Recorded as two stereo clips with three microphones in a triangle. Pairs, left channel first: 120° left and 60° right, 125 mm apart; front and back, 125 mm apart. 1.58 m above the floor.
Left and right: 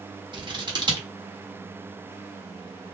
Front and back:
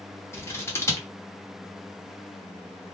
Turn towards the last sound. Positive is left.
turn(degrees=-55)